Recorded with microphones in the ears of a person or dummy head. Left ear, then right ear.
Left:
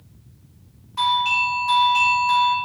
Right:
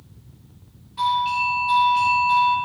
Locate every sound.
1.0 s a doorbell: 45° left (ahead or behind), 2.5 m